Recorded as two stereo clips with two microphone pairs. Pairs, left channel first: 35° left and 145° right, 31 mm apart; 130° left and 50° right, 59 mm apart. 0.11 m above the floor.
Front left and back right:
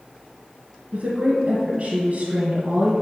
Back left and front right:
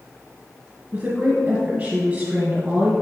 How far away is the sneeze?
I don't hear a sneeze.